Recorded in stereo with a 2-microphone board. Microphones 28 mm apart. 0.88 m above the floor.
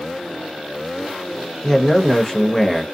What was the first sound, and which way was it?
A man speaking, 15° left (ahead or behind).